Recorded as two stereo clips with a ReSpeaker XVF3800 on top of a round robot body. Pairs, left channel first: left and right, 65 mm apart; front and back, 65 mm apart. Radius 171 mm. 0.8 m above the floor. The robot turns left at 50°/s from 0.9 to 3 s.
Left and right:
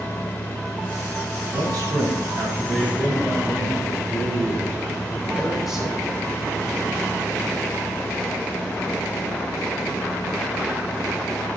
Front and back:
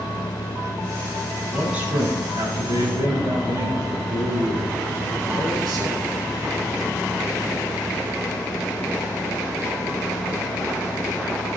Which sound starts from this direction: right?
A man speaking, at 1.5 s.